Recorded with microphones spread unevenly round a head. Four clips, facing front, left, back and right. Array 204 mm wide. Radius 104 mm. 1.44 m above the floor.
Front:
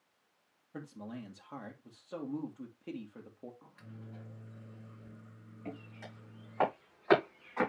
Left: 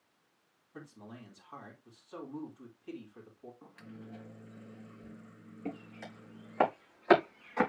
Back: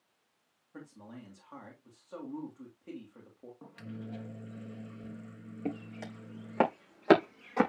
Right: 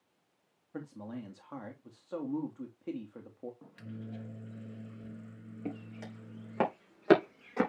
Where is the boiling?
No boiling in this recording.